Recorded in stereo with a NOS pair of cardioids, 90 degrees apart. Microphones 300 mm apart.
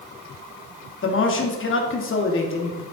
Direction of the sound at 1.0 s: 45° left.